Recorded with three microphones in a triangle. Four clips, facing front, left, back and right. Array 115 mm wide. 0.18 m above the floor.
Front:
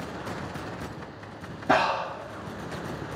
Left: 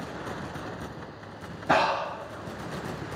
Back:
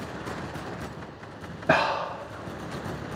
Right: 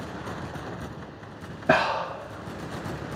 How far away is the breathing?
About 1.4 m.